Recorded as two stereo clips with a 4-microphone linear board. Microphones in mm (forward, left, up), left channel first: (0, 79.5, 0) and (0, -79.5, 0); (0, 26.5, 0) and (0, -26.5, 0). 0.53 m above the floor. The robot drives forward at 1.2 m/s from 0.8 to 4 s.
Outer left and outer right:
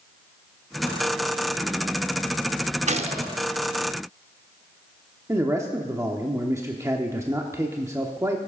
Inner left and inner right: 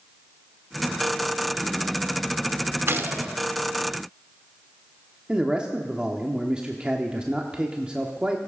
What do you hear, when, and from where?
2.9 s a gunshot: 50° right (ahead or behind), 0.6 m; by 3.4 s 25° right (ahead or behind), 1.1 m
5.3 s a man speaking: 20° right (ahead or behind), 0.9 m